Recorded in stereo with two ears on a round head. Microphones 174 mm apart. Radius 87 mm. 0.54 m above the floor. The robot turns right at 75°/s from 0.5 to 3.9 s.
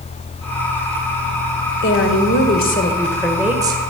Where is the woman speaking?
65° left, 1.7 m; by 3.9 s 140° right, 1.7 m.